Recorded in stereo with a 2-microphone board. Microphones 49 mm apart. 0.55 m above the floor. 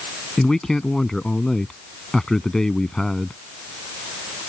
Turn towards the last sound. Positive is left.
turn(degrees=10)  # may be behind; listen again after turning